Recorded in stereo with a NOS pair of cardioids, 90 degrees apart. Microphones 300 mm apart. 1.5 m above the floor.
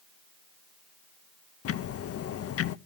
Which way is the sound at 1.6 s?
50° left.